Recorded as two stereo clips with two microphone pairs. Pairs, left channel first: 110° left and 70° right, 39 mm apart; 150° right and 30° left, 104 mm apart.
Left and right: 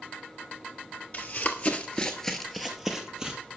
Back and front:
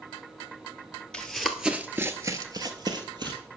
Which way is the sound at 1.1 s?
130° left.